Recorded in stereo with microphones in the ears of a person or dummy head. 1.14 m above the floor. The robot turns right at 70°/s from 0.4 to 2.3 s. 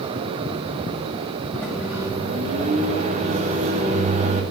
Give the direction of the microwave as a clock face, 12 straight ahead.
6 o'clock.